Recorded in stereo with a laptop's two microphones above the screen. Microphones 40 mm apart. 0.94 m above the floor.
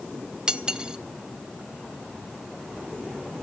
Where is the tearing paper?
No tearing paper in this recording.